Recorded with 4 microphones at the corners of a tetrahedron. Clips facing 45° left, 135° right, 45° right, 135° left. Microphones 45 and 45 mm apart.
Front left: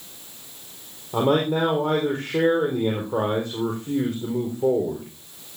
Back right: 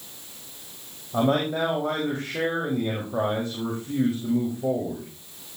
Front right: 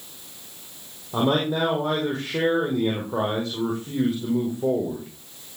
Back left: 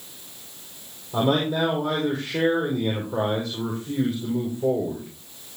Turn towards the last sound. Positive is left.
turn(degrees=25)